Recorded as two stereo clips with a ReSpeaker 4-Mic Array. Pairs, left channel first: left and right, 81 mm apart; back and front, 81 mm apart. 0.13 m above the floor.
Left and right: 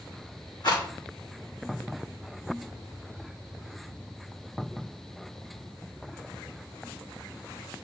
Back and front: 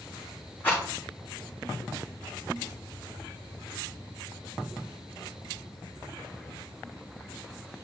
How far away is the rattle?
About 3.5 m.